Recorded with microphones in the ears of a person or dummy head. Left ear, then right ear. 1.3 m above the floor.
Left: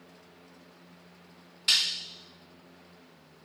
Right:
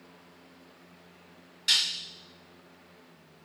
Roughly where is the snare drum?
Centre.